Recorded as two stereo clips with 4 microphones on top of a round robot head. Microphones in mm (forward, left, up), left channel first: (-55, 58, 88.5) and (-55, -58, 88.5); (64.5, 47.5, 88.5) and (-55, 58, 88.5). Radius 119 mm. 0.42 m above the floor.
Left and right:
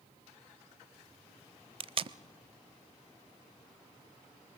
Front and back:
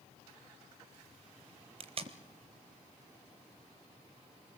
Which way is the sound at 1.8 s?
135° right.